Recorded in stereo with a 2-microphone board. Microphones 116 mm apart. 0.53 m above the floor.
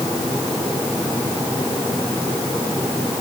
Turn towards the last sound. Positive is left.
No sound to turn to.